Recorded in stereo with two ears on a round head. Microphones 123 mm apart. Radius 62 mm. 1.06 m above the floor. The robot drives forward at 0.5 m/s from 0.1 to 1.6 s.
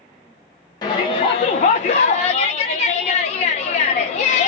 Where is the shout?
30° left (ahead or behind), 0.8 m; by 4.5 s 45° left (ahead or behind), 0.6 m.